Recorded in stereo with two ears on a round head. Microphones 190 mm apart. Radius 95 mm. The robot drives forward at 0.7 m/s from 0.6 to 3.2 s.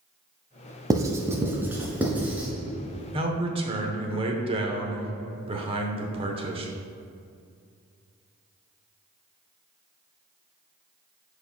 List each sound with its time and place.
0.9 s writing: 20° right (ahead or behind), 0.7 m; by 2.5 s 5° right (ahead or behind), 1.8 m
3.1 s a man speaking: 25° right (ahead or behind), 0.9 m